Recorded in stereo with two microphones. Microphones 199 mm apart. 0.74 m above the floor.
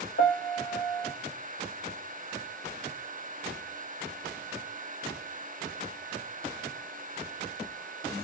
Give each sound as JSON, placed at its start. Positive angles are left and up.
{"t": 0.2, "sound": "a piano", "side_deg": 60, "distance_m": 0.7}